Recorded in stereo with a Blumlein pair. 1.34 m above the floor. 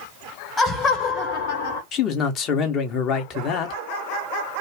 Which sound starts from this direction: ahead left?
A man speaking, at 1.9 s.